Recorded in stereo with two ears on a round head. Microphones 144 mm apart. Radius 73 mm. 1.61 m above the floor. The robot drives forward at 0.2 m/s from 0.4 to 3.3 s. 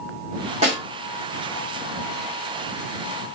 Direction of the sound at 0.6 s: 40° right (ahead or behind).